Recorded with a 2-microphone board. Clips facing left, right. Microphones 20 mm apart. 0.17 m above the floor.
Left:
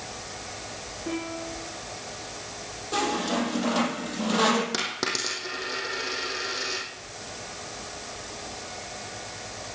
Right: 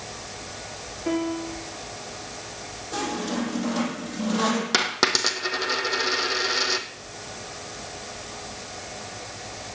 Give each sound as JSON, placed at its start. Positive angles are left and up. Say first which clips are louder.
{"t": 1.1, "sound": "a piano", "louder": "right 6 dB", "side_deg": -30, "distance_m": 5.0}
{"t": 2.9, "sound": "a squeak", "louder": "left 2 dB", "side_deg": 30, "distance_m": 4.5}
{"t": 4.7, "sound": "a dropped coin", "louder": "right 6 dB", "side_deg": -40, "distance_m": 1.9}